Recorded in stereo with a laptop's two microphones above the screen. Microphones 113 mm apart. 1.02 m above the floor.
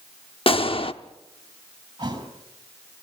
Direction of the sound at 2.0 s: 40° right (ahead or behind).